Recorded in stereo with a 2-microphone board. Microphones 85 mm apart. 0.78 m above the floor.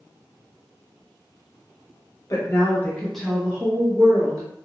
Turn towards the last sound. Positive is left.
turn(degrees=-40)  # may be behind; listen again after turning